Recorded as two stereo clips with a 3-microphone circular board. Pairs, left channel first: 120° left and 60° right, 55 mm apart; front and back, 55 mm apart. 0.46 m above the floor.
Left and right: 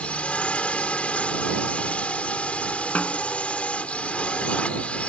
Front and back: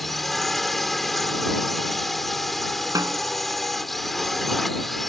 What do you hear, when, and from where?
0.0 s a drone: 85° left
3.0 s a snare drum: 175° right